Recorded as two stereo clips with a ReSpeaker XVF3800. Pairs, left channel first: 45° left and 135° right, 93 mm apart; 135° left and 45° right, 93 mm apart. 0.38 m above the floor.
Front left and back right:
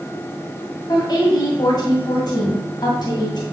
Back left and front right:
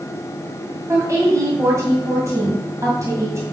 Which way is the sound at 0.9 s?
10° left.